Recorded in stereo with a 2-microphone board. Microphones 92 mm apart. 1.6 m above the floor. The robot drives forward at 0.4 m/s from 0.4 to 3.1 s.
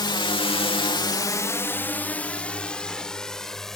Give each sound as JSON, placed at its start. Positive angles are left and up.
{"t": 0.0, "sound": "a drone", "side_deg": 50}